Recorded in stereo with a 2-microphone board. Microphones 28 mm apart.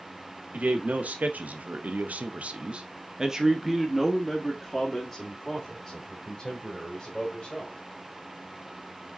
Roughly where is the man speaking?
Right.